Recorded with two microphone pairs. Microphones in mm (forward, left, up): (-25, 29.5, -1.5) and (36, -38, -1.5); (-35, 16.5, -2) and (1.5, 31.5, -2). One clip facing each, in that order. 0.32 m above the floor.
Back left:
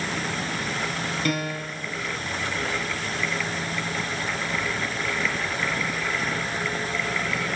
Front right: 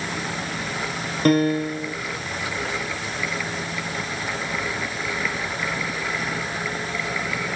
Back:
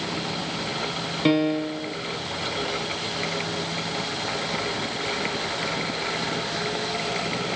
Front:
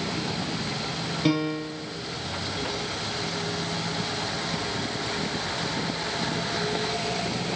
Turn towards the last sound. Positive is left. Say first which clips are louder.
# front right 14 dB, back 5 dB
turn(degrees=-95)